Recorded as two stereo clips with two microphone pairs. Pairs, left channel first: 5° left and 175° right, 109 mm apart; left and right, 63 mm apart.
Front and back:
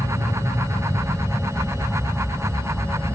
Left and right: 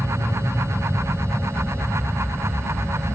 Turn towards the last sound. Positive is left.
turn(degrees=55)